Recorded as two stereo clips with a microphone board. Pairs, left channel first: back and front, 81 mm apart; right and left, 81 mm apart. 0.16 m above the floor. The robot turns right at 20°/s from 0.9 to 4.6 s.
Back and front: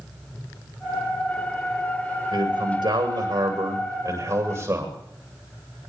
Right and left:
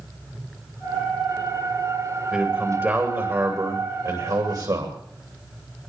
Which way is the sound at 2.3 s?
10° left.